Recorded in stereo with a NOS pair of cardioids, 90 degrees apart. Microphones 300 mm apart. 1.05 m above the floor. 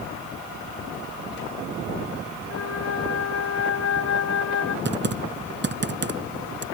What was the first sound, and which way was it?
A flute, 50° left.